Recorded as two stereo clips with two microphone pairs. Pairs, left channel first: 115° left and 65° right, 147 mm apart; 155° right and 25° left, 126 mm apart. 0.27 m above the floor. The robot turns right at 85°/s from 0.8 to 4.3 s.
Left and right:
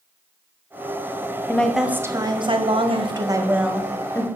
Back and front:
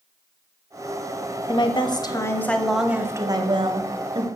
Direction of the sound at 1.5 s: 175° right.